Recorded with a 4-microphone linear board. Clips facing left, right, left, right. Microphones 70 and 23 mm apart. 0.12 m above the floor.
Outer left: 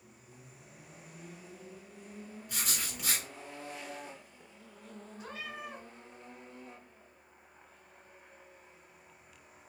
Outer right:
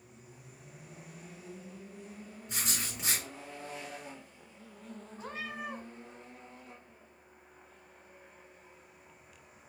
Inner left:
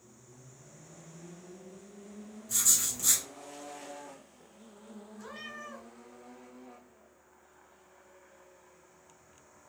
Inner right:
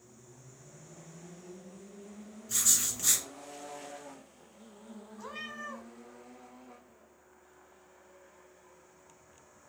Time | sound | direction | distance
2.5 | writing | 25° right (ahead or behind) | 1.4 m
5.2 | a cat meowing | 30° right (ahead or behind) | 1.4 m